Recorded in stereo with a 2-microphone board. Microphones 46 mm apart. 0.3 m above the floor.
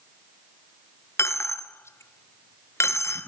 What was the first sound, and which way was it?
A dropped coin, 80° left.